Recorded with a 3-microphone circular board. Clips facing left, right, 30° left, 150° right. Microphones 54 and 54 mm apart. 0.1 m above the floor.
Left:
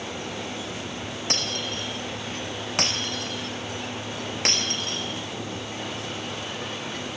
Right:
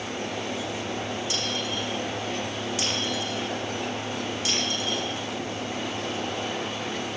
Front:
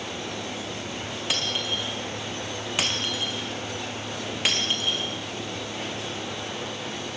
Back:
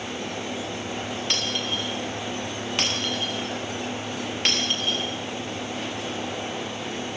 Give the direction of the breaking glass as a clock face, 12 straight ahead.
8 o'clock.